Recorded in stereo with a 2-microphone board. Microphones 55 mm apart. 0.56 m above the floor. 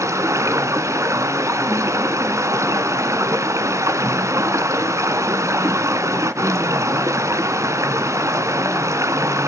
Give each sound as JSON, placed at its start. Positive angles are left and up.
{"t": 0.0, "sound": "running water", "side_deg": -65, "distance_m": 1.3}